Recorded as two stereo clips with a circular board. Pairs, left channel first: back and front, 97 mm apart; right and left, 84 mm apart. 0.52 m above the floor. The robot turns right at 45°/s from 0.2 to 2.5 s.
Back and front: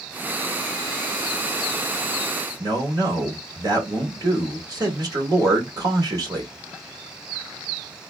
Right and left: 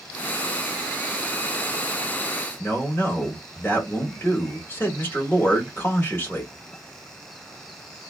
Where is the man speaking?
35° right, 1.5 m.